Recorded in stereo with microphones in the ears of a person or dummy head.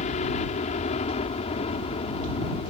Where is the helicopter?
35° left (ahead or behind); by 2.7 s 30° left (ahead or behind).